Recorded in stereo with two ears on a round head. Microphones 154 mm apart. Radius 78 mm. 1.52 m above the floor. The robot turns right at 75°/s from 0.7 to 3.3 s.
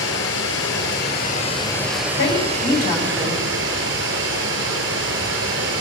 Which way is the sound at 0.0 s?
85° left.